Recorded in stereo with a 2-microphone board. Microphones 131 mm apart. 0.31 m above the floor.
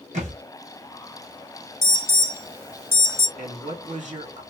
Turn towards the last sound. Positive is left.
turn(degrees=-60)  # may be behind; listen again after turning